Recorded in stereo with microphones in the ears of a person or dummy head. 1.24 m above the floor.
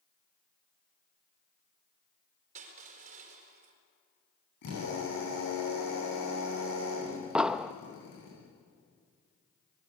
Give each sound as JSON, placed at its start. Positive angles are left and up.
{"t": 2.5, "sound": "crushing", "side_deg": -45, "distance_m": 4.5}
{"t": 4.6, "sound": "a drill", "side_deg": 70, "distance_m": 10.0}
{"t": 7.3, "sound": "an explosion", "side_deg": -10, "distance_m": 0.6}